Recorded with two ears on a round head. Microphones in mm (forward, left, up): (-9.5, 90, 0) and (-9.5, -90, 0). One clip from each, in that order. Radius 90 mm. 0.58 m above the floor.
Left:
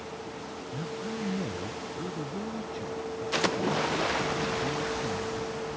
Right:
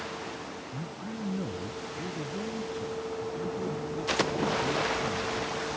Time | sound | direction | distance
0.7 | a man speaking | 5° left (ahead or behind) | ?